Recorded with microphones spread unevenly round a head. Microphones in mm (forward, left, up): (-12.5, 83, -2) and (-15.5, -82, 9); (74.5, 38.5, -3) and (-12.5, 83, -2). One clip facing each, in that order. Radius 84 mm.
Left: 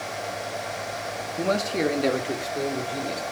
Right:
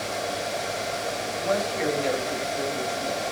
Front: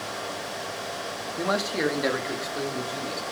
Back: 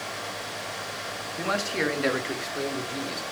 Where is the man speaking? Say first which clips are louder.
Left 3 dB, front 2 dB; 45° left, 2 m; by 3.2 s 60° left, 4 m.